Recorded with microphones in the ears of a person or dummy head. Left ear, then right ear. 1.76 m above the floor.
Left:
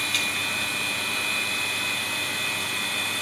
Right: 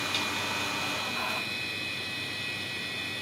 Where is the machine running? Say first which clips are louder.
Left 5 dB; 35° left (ahead or behind).